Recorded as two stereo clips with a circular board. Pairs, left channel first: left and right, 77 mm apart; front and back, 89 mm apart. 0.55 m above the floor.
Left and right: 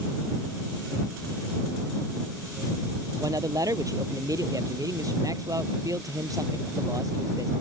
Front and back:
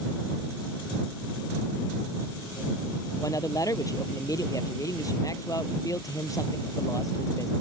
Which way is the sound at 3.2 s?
50° right.